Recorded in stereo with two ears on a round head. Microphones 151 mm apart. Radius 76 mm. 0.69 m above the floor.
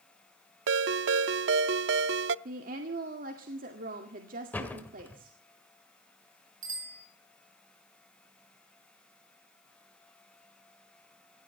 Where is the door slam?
10° left (ahead or behind), 1.9 m.